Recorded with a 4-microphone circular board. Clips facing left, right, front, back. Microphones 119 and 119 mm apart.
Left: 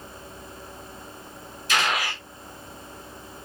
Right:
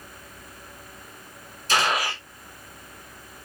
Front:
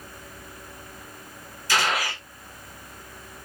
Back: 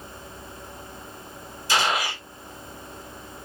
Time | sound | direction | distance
1.7 | a gunshot | 120° right | 0.9 m